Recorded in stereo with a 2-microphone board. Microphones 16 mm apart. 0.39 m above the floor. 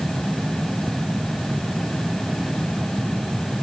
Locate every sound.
Only background noise.